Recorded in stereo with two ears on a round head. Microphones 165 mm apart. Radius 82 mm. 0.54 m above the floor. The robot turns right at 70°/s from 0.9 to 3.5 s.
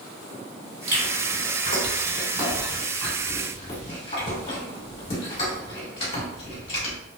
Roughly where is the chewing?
Right.